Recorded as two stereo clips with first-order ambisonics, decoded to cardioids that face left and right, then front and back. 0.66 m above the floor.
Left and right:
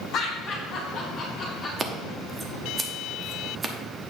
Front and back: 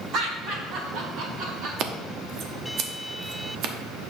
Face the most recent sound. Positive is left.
turn(degrees=-160)